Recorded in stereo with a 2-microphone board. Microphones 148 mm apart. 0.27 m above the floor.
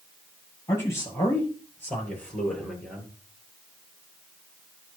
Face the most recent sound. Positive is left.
turn(degrees=0)  # may be behind; listen again after turning